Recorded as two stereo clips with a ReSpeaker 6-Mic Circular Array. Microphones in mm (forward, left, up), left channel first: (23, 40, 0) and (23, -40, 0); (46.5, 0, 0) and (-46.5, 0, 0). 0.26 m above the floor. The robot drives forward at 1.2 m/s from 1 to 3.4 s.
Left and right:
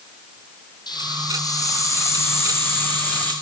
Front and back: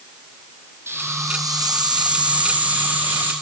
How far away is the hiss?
About 1.9 m.